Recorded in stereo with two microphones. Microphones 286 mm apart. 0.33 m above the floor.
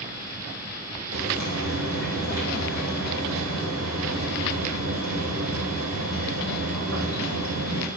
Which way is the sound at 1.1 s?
85° right.